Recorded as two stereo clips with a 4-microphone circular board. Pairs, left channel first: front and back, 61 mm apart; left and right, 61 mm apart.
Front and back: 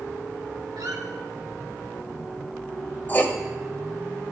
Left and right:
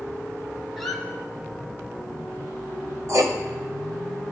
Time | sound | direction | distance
0.8 | a squeak | 175° left | 1.0 m
3.1 | writing | 60° right | 0.6 m